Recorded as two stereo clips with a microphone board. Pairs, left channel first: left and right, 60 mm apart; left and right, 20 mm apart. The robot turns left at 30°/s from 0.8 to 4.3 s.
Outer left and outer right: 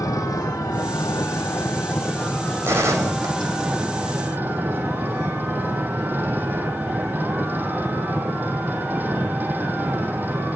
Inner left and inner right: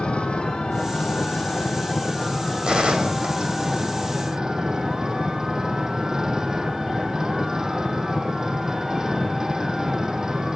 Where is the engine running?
70° left, 1.7 m; by 10.6 s 35° right, 1.7 m.